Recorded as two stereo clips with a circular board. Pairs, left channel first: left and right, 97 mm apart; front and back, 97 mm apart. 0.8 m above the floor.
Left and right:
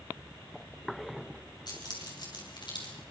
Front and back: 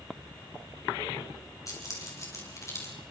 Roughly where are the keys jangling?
Ahead left.